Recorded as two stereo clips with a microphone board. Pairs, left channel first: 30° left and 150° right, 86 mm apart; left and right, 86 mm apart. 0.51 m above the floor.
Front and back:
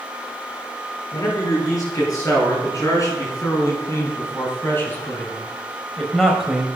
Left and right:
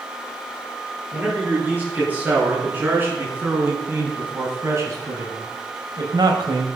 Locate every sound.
1.1 s a man speaking: 15° right, 7.5 m; by 6.7 s 75° right, 2 m